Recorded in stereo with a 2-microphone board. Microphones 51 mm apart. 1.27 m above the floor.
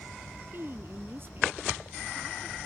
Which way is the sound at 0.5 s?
50° right (ahead or behind).